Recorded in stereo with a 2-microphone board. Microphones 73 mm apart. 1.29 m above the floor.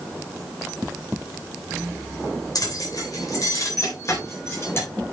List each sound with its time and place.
2.5 s keys jangling: 60° left (ahead or behind), 3.5 m; by 4.9 s 35° left (ahead or behind), 4 m